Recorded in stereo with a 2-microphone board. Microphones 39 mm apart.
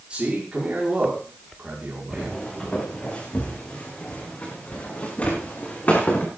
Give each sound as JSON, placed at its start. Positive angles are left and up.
{"t": 0.1, "sound": "a man speaking", "side_deg": -25, "distance_m": 5.5}
{"t": 2.1, "sound": "footsteps", "side_deg": 25, "distance_m": 6.0}